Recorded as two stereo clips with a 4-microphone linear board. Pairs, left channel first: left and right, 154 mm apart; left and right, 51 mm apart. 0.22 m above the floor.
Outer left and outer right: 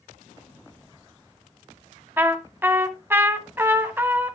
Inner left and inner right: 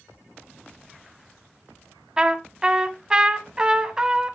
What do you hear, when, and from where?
2.2 s a trumpet: 15° right (ahead or behind), 1.3 m